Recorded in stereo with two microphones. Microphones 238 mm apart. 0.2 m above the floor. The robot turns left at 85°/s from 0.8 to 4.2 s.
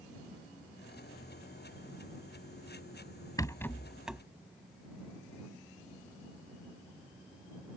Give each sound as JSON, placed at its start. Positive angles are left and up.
{"t": 3.4, "sound": "a rattle", "side_deg": 15}